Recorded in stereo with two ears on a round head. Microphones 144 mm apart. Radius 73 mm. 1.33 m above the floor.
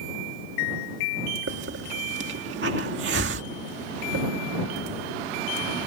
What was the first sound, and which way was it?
A hiss, 80° right.